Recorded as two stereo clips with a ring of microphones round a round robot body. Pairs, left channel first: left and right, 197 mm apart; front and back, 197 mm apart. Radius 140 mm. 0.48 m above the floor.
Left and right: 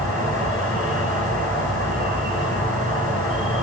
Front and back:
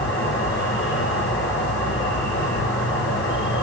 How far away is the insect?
About 3.5 m.